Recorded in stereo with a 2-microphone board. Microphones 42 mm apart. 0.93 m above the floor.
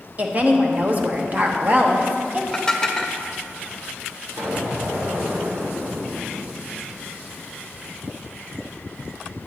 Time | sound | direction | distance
0.2 | a woman speaking | 40° right (ahead or behind) | 0.9 m
2.5 | dishes clattering | 15° left (ahead or behind) | 0.5 m
4.4 | an explosion | 80° right | 1.6 m